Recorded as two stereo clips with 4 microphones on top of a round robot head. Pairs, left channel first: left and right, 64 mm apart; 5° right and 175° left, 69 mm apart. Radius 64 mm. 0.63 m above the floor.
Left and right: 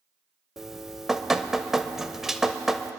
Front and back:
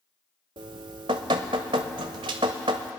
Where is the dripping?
175° right, 0.6 m.